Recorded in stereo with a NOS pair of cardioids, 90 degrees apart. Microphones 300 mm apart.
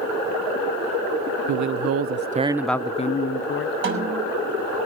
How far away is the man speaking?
About 1.1 m.